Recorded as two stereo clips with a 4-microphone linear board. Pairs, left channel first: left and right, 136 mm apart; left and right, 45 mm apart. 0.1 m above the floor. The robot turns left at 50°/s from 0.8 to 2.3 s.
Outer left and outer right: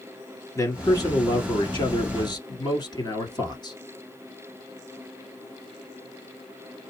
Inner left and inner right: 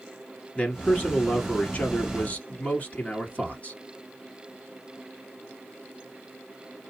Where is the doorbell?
I don't hear a doorbell.